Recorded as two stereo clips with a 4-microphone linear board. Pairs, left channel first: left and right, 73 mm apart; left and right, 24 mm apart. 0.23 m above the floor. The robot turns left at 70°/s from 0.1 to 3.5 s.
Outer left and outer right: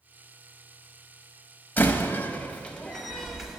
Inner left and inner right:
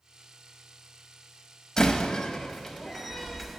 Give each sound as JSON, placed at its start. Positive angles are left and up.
{"t": 1.8, "sound": "a door slam", "side_deg": 25, "distance_m": 0.7}